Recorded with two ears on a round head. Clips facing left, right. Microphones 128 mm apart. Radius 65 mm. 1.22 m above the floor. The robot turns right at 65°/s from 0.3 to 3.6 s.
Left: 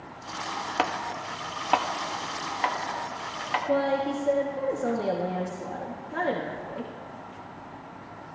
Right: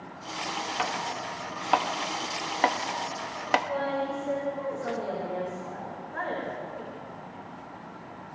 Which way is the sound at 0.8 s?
55° left (ahead or behind).